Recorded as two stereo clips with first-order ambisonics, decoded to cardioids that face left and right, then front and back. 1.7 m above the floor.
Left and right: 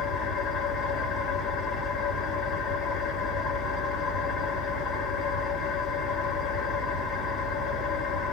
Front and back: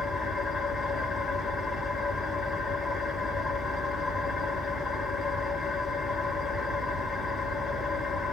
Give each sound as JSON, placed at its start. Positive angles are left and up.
{"t": 0.0, "sound": "an engine running", "azimuth_deg": 75, "distance_m": 1.8}